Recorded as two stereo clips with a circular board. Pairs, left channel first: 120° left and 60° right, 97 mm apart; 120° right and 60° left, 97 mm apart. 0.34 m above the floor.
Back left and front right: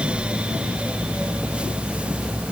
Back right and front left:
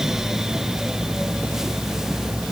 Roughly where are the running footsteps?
I don't hear running footsteps.